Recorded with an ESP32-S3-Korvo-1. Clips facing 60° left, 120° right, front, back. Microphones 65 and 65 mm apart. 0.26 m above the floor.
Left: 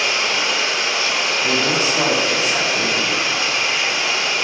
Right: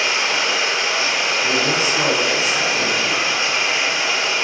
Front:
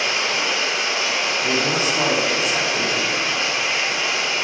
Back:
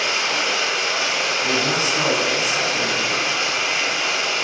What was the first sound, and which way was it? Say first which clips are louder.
Running water: even, even; straight behind.